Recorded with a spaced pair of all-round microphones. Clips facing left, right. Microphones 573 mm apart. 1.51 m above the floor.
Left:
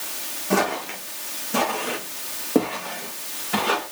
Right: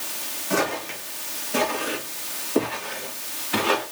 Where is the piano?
I don't hear a piano.